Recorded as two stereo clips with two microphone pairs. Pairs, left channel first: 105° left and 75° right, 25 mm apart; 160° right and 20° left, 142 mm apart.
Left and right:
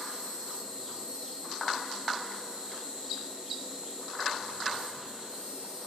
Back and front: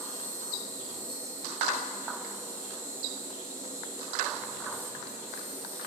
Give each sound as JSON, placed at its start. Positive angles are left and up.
{"t": 0.0, "sound": "an insect", "azimuth_deg": -40, "distance_m": 4.0}